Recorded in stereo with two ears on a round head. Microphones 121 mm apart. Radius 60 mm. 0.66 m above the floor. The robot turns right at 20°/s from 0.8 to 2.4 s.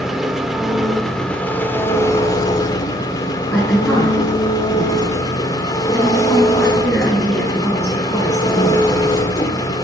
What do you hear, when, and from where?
0.0 s an engine running: straight ahead, 1.5 m; by 9.8 s 30° left, 1.5 m
3.5 s a woman speaking: 5° left (ahead or behind), 7 m